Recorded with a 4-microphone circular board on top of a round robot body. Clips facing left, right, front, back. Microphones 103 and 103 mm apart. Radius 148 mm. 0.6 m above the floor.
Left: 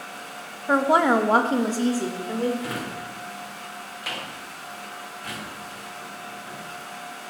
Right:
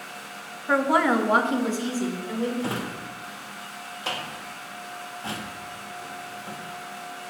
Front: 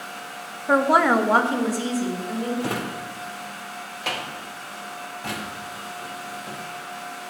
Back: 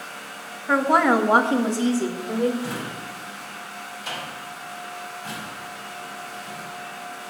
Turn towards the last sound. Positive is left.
turn(degrees=-30)